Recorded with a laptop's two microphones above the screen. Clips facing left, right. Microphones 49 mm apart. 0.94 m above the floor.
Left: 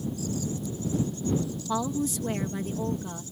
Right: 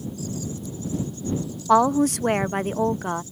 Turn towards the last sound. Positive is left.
turn(degrees=-65)  # may be behind; listen again after turning